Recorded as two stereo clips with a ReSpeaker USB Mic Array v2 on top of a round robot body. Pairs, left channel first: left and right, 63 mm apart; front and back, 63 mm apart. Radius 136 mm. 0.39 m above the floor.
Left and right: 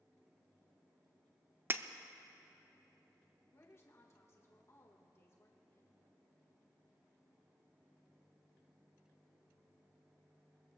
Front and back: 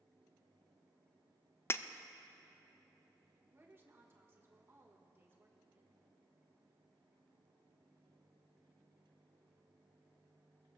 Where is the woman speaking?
130° left, 1.7 m.